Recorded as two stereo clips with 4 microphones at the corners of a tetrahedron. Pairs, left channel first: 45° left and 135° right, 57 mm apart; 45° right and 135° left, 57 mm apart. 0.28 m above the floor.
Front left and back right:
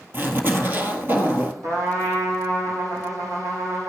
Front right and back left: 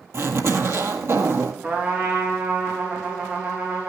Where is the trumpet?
155° right, 5.5 m.